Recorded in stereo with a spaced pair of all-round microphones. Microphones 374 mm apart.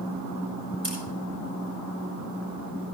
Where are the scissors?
40° right (ahead or behind), 6.5 m.